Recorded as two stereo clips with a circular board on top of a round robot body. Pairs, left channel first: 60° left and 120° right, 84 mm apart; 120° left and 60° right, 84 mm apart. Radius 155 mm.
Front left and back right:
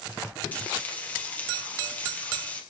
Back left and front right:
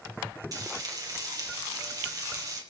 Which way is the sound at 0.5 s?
10° right.